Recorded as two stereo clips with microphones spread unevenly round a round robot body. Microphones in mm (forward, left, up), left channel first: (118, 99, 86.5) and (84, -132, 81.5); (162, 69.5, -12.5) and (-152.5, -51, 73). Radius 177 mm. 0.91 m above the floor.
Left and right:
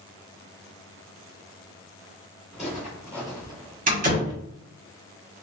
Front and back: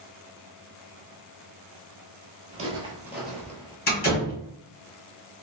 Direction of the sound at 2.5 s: 170° left.